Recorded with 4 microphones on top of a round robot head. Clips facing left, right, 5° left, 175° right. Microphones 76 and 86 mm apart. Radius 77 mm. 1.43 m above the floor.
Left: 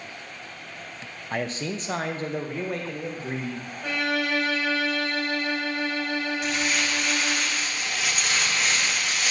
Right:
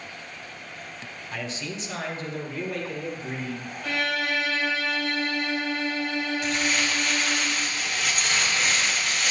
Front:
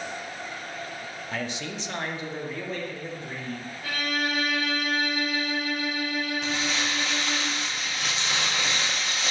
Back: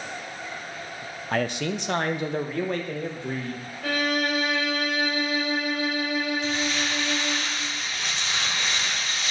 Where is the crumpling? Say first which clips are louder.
Even, back 2 dB; straight ahead, 1.2 m.